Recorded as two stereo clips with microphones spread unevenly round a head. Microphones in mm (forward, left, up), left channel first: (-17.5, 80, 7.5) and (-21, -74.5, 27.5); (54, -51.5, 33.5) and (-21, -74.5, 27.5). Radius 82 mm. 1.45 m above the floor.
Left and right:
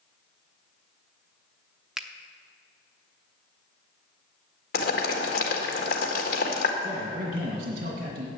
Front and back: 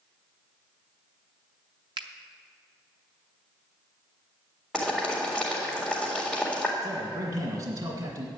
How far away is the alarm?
No alarm in this recording.